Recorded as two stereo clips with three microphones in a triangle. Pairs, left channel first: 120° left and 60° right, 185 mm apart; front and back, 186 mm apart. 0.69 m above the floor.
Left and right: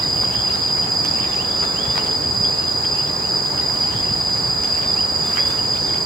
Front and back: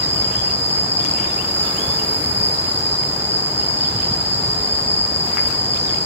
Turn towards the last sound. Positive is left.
turn(degrees=10)